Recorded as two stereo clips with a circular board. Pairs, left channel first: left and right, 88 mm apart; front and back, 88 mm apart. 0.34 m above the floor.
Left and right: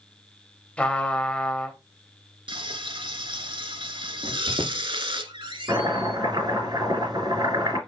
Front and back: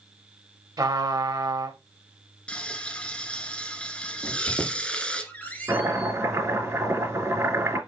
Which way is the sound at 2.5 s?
80° right.